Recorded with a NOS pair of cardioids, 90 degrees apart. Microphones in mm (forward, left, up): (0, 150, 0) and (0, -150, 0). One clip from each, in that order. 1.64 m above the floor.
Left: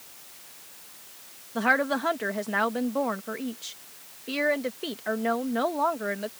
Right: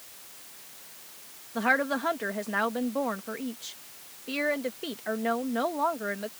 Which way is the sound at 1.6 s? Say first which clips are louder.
Left 2 dB; 15° left.